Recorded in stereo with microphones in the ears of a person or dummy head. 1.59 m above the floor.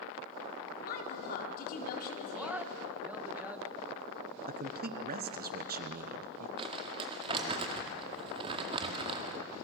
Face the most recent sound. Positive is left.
turn(degrees=-30)  # may be behind; listen again after turning